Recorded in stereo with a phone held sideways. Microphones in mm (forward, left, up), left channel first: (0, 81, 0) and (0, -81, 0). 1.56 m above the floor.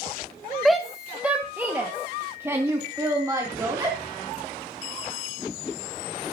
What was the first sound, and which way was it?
A shout, centre (ahead or behind).